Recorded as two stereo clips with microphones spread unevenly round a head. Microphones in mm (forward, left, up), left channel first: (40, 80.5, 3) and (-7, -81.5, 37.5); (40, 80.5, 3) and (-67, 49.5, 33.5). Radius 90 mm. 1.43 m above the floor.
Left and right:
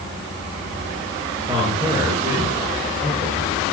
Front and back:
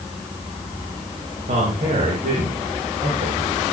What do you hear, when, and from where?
1.5 s a man speaking: 175° right, 6 m; by 3.6 s straight behind, 7.5 m